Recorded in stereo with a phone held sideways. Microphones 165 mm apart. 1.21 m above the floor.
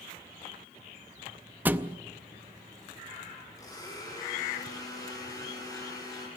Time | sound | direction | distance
1.6 | a thud | 10° right (ahead or behind) | 0.6 m
3.6 | a blender | 20° left (ahead or behind) | 8.5 m